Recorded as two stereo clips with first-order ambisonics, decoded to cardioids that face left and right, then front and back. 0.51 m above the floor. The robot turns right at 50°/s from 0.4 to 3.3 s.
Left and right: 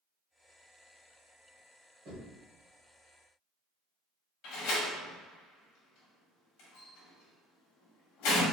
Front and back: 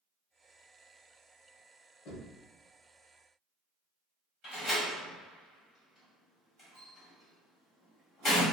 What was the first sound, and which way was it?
Knocking, 35° right.